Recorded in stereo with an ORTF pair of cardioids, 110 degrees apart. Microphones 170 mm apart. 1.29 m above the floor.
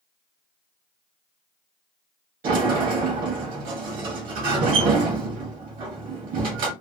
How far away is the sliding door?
About 1.5 m.